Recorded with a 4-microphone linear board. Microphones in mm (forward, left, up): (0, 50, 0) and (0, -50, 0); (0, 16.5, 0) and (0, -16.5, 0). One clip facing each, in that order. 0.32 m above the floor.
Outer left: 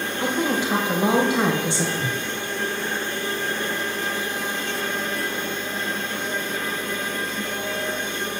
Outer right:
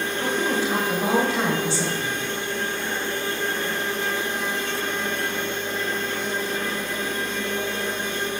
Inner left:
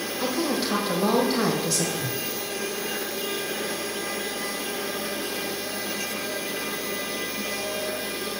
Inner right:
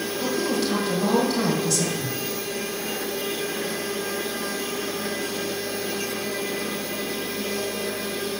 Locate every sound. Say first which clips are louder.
0.2 s a woman speaking: outer left 1 dB, inner right 1 dB; 15° left (ahead or behind), 1.3 m
2.0 s a whoosh: outer left 1 dB, inner right 1 dB; 60° left (ahead or behind), 0.6 m